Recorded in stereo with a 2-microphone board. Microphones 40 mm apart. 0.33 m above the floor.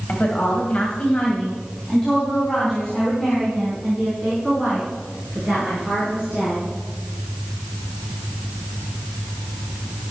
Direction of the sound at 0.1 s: 45° left (ahead or behind).